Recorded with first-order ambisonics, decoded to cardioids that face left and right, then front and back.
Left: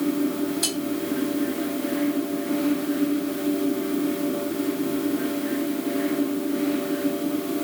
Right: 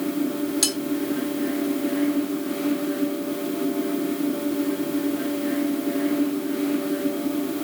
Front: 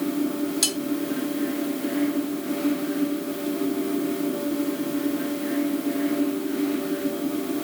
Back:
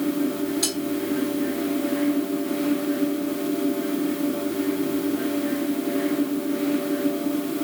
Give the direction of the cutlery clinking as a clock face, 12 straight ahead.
2 o'clock.